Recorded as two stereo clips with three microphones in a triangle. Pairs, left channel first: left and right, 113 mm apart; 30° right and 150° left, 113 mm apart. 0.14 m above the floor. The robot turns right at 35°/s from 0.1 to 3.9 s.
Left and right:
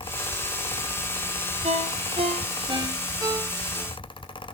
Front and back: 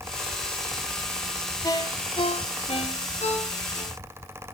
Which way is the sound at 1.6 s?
85° right.